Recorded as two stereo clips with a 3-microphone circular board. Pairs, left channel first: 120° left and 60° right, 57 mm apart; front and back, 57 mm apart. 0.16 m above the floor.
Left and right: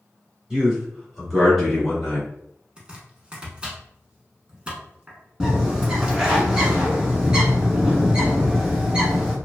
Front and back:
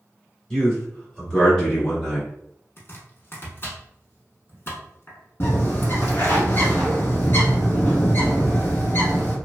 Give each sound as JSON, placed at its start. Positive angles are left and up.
{"t": 0.5, "sound": "a man speaking", "azimuth_deg": -55, "distance_m": 1.4}
{"t": 2.8, "sound": "chopping", "azimuth_deg": 0, "distance_m": 0.9}
{"t": 5.4, "sound": "a bird", "azimuth_deg": 10, "distance_m": 1.1}